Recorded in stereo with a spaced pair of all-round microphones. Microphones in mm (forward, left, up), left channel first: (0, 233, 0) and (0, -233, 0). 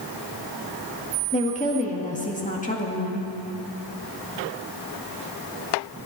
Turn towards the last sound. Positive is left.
turn(degrees=15)  # may be behind; listen again after turning